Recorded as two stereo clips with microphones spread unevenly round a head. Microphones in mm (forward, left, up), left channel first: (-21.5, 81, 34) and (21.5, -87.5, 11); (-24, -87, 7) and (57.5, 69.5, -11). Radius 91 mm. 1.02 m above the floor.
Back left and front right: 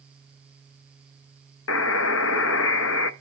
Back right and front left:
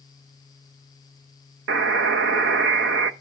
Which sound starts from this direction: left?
A buzzer, at 1.7 s.